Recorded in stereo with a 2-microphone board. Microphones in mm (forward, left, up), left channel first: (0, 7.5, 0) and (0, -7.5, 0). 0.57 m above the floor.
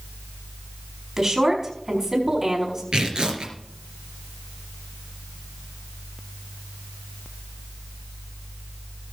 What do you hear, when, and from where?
1.2 s a woman speaking: 40° right (ahead or behind), 5 m
2.9 s tearing paper: 70° right (ahead or behind), 3 m